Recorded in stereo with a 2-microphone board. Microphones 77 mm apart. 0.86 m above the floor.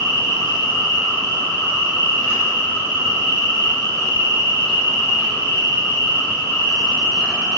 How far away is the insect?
About 0.7 m.